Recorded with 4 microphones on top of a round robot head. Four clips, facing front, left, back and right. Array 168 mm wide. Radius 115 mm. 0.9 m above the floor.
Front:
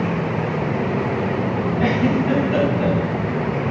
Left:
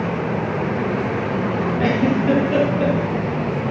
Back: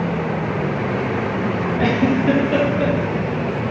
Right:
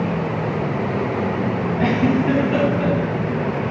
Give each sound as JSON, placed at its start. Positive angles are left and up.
{"t": 1.8, "sound": "a giggle", "azimuth_deg": 165, "distance_m": 2.5}